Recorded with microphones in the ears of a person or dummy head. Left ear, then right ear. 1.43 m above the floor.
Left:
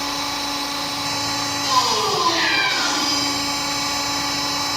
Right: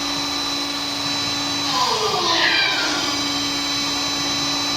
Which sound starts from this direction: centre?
A cat meowing, at 2.1 s.